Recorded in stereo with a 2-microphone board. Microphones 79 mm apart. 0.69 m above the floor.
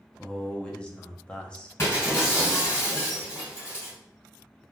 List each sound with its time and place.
0.2 s a man speaking: 15° left (ahead or behind), 0.6 m
1.8 s breaking glass: 40° left (ahead or behind), 2.0 m